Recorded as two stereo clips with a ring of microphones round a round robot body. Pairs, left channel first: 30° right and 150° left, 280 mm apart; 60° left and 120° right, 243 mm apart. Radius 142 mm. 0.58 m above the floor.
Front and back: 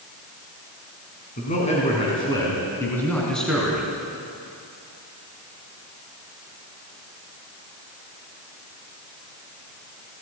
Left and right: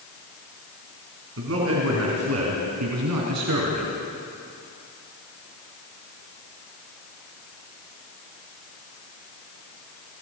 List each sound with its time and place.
1.4 s a man speaking: 95° right, 5.5 m; by 3.9 s 125° right, 6 m